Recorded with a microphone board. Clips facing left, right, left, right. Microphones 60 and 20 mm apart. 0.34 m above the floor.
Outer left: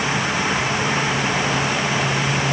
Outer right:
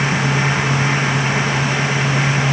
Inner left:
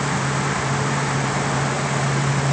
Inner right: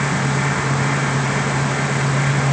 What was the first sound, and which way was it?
Only background noise.